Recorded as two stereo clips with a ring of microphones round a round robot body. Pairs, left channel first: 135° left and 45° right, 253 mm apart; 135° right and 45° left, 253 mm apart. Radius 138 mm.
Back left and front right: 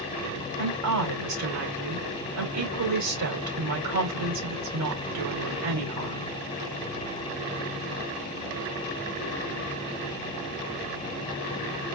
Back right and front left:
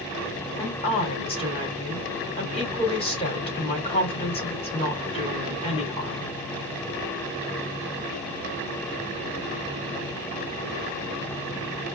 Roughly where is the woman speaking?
Ahead right.